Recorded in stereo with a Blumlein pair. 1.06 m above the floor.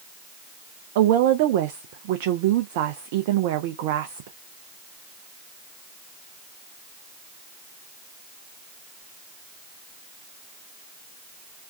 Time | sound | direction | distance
0.9 | a woman speaking | 50° right | 0.5 m